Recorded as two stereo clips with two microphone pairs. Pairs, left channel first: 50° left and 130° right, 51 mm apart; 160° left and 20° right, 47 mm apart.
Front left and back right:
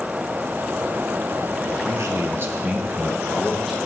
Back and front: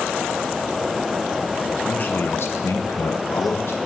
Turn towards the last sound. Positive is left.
turn(degrees=145)